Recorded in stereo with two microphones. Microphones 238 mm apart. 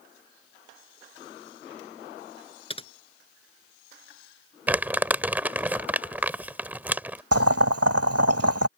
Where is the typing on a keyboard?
25° left (ahead or behind).